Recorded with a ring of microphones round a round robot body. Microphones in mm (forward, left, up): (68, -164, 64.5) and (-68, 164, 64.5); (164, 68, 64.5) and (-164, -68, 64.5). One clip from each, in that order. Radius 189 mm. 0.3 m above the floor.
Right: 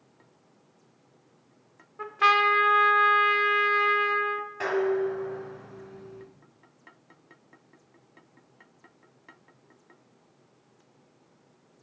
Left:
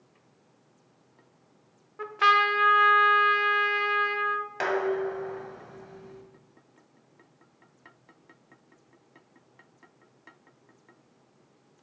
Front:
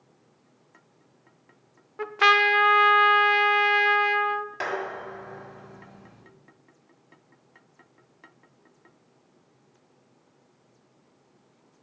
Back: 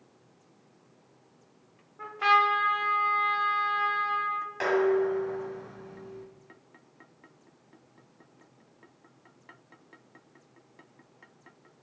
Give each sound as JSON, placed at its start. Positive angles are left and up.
{"t": 2.0, "sound": "a trumpet", "azimuth_deg": 35, "distance_m": 0.5}
{"t": 4.6, "sound": "dishes clattering", "azimuth_deg": 100, "distance_m": 1.5}